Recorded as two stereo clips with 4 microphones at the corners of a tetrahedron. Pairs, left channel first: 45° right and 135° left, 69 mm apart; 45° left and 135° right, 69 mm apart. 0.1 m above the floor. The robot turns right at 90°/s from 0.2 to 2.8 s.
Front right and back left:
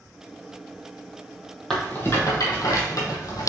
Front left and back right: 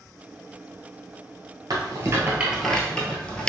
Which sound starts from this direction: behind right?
A rattle, at 1.7 s.